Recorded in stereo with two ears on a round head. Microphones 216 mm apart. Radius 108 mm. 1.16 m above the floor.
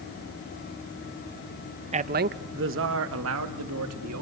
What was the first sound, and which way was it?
A man speaking, 25° right (ahead or behind).